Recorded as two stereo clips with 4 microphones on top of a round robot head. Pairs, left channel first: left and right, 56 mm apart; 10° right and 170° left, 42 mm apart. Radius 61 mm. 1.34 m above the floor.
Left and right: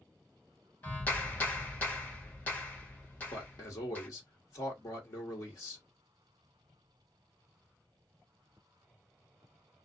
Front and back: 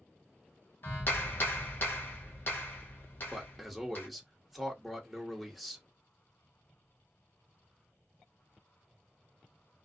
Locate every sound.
0.8 s a clap: 30° left, 1.0 m
3.3 s a man speaking: 80° left, 1.7 m